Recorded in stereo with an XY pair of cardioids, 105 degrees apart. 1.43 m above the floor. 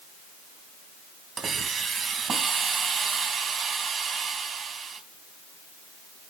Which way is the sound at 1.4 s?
50° right.